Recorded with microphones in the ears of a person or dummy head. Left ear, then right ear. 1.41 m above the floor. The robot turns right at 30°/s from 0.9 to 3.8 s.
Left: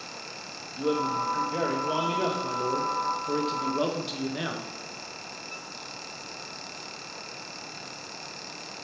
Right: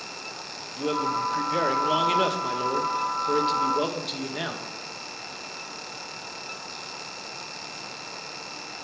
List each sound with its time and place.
0.8 s a man speaking: 100° right, 0.8 m; by 4.7 s 10° right, 0.8 m